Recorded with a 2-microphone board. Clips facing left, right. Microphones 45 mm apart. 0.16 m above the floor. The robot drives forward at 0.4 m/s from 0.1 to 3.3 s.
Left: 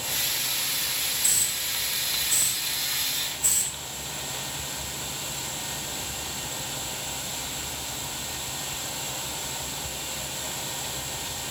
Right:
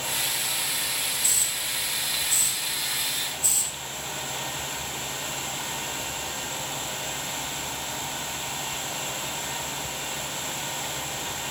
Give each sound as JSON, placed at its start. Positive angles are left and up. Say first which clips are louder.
{"t": 1.2, "sound": "a hiss", "louder": "right 1 dB", "side_deg": 35, "distance_m": 6.5}